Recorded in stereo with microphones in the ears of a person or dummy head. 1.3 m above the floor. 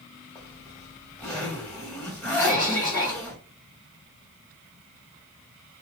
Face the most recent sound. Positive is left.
turn(degrees=15)  # may be behind; listen again after turning